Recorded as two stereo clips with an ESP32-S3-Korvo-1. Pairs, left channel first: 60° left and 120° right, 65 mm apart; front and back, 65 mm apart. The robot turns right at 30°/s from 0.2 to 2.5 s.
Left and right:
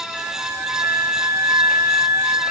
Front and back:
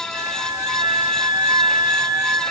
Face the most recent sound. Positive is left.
turn(degrees=-140)